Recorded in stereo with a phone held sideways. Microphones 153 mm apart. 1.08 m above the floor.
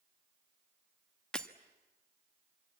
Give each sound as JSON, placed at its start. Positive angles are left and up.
{"t": 1.3, "sound": "breaking glass", "side_deg": 5, "distance_m": 1.1}